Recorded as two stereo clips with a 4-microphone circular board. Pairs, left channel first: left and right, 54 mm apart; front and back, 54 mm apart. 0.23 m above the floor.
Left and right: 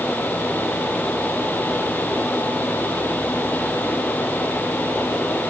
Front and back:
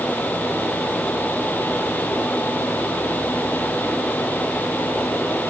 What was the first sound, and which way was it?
Only background noise.